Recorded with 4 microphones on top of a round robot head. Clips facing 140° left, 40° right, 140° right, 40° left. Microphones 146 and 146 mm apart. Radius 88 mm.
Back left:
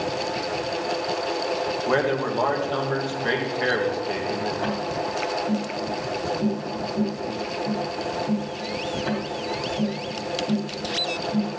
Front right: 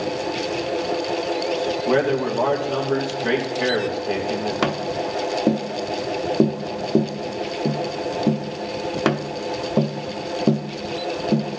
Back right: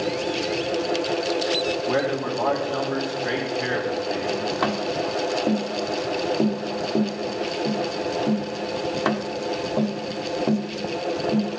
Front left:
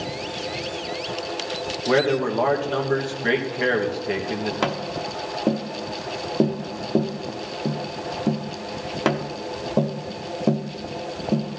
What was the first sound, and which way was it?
A man speaking, 40° left.